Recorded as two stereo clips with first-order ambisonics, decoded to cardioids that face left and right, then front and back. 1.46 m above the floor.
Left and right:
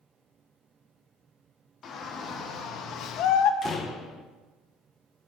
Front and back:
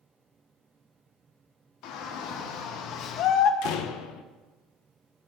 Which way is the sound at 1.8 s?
30° left.